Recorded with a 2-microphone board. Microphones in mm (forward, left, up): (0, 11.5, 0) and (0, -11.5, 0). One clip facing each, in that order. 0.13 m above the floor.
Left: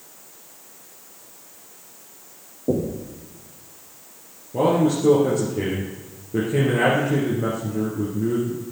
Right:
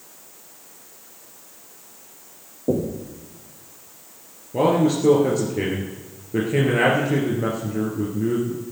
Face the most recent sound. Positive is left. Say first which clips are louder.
# even
turn(degrees=-45)  # may be behind; listen again after turning